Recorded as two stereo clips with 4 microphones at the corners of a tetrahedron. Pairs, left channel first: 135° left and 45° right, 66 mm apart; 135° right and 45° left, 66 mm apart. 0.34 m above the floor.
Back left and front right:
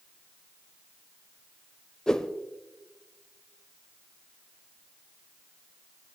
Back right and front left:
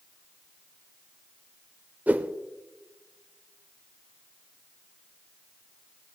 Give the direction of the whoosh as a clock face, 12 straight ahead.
10 o'clock.